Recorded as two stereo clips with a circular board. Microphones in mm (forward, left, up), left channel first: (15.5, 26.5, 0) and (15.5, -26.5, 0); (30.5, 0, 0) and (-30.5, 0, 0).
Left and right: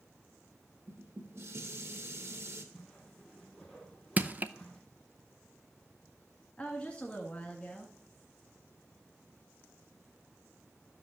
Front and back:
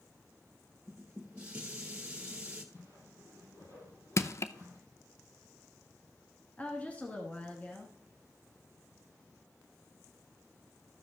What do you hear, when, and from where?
0.9 s dishes clattering: 110° right, 1.6 m
2.7 s a whoosh: 5° right, 4.5 m
4.2 s crushing: 35° right, 0.5 m
6.6 s a woman speaking: 45° left, 1.4 m